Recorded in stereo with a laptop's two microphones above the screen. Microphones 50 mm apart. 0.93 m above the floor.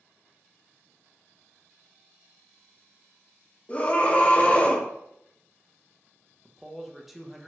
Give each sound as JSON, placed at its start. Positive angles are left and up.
{"t": 3.7, "sound": "a scream", "side_deg": 25, "distance_m": 0.8}
{"t": 6.5, "sound": "a man speaking", "side_deg": -5, "distance_m": 0.6}